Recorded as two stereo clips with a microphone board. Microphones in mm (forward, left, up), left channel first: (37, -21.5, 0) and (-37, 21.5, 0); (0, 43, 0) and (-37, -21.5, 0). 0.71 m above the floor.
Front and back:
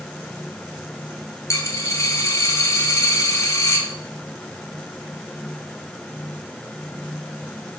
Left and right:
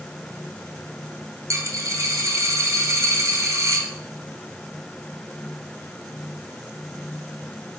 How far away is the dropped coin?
About 1.2 m.